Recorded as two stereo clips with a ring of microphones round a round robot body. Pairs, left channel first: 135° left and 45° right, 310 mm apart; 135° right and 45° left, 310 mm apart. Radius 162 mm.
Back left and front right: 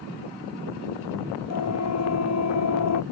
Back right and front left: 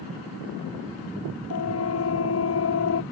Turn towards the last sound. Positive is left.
turn(degrees=175)